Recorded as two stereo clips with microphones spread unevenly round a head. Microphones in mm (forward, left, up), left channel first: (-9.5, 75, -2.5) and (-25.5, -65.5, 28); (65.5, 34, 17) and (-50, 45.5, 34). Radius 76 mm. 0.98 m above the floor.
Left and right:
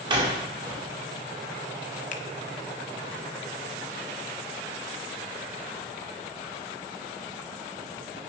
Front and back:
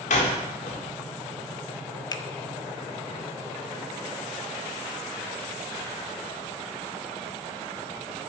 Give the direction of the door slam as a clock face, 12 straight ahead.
1 o'clock.